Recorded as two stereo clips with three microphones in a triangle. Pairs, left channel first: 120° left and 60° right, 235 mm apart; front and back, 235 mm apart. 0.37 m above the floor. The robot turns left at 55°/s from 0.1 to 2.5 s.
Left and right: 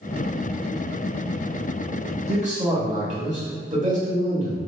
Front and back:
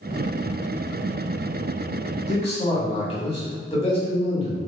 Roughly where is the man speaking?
Ahead right.